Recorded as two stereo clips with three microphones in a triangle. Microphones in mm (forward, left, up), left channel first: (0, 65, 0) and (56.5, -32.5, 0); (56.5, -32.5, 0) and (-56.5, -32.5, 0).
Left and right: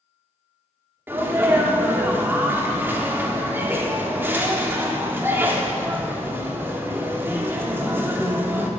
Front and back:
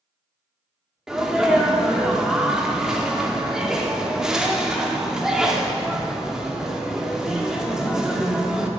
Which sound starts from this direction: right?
A sneeze, at 1.1 s.